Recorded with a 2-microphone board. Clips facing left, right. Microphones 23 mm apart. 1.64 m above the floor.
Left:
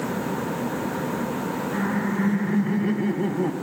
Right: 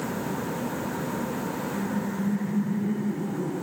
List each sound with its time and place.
1.7 s laughter: 60° left (ahead or behind), 1.7 m; by 3.5 s 80° left, 2.5 m